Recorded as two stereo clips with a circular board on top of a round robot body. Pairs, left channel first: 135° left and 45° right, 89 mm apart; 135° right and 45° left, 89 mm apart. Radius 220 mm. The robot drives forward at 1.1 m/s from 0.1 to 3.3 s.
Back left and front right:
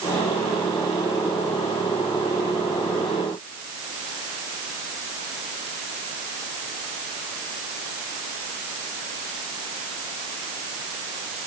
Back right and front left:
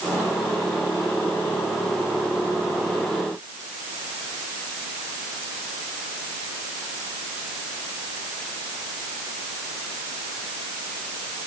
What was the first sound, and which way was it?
Only background noise.